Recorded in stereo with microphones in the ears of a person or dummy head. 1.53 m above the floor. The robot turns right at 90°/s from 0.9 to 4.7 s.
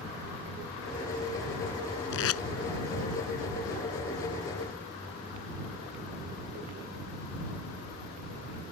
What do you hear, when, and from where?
2.1 s tape being pulled: 65° left (ahead or behind); by 2.4 s 85° left